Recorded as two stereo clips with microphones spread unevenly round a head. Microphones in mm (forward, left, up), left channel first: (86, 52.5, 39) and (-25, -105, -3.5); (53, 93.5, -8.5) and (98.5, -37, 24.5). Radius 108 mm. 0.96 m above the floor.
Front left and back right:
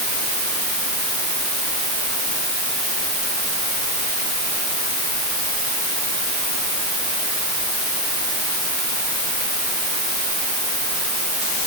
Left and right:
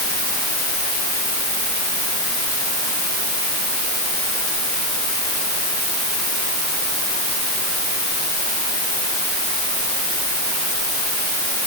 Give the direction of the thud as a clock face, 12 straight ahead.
No thud in this recording.